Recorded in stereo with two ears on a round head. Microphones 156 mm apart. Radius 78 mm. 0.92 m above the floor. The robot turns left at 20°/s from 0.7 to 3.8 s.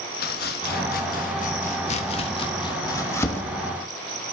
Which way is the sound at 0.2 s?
60° left (ahead or behind).